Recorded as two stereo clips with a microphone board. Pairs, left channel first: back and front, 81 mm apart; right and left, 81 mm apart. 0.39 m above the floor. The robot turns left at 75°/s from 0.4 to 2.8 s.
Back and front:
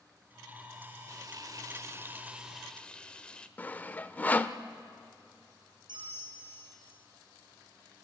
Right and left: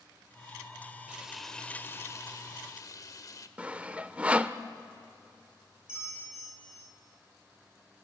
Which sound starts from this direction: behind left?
Sawing, at 3.6 s.